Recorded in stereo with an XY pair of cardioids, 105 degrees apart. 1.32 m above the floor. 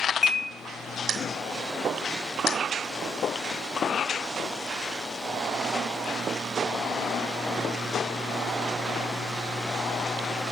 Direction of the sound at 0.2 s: 30° left.